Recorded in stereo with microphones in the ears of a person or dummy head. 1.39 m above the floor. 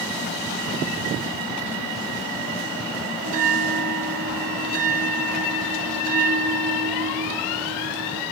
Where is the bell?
40° right (ahead or behind), 0.6 m.